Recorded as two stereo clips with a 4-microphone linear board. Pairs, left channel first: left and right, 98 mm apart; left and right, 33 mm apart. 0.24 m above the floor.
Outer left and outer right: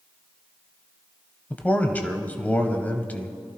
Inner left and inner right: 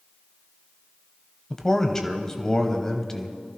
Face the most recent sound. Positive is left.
turn(degrees=20)  # may be behind; listen again after turning